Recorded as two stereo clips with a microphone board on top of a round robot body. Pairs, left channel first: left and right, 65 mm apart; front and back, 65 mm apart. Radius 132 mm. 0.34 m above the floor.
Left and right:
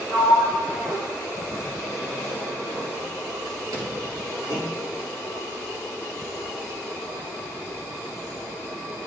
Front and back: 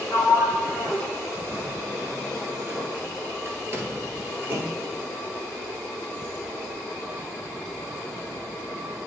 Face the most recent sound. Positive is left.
turn(degrees=-125)